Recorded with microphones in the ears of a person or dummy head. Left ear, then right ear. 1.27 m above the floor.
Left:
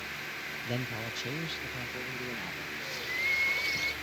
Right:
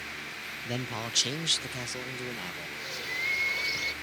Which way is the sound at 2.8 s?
5° right (ahead or behind).